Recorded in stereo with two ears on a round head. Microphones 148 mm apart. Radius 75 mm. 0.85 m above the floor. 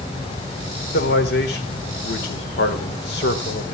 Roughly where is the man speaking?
Left.